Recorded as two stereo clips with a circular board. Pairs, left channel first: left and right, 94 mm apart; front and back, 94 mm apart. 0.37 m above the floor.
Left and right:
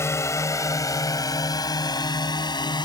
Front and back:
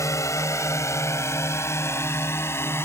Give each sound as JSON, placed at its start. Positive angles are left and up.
{"t": 0.0, "sound": "a drone", "azimuth_deg": 40}